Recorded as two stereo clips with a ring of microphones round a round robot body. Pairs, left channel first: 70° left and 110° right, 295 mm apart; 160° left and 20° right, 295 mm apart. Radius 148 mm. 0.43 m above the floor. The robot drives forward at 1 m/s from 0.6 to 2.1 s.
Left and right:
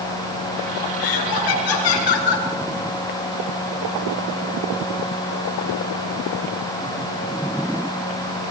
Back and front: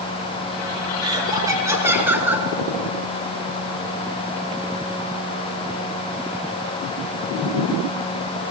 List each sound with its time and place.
1.0 s laughter: 55° left, 7.5 m; by 2.5 s 60° left, 7 m